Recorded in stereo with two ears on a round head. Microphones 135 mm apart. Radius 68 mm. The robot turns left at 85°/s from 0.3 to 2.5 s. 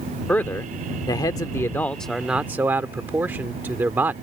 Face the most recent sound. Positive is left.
turn(degrees=-15)  # may be behind; listen again after turning